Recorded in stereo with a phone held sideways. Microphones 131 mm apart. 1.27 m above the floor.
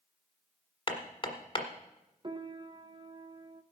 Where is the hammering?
40° left (ahead or behind), 1.4 m.